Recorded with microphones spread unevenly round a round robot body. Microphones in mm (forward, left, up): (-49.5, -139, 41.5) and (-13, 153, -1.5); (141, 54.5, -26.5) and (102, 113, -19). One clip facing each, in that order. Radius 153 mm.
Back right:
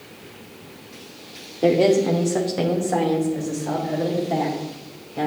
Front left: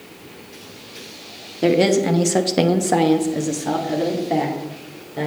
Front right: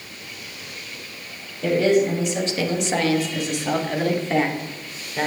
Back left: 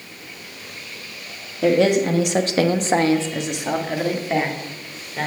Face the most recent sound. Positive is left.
turn(degrees=30)